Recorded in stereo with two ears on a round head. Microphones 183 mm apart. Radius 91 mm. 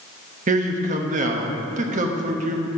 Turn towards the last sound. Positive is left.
turn(degrees=-40)  # may be behind; listen again after turning